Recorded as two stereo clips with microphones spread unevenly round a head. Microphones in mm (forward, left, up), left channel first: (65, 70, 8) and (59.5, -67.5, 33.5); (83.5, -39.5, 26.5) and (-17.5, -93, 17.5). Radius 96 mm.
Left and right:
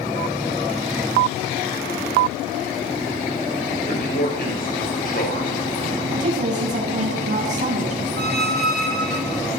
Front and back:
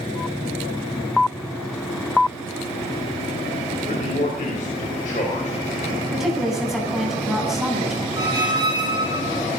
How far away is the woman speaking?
About 9.5 m.